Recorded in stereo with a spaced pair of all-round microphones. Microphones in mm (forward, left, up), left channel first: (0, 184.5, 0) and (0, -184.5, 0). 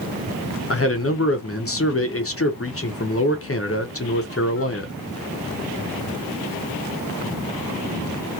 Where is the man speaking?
40° left (ahead or behind), 0.7 m.